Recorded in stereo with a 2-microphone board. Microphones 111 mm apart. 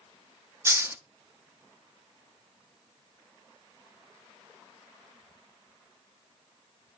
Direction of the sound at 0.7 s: 25° right (ahead or behind).